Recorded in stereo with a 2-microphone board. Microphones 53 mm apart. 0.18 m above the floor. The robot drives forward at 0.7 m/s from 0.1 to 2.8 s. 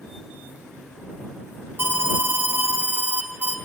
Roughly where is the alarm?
Right.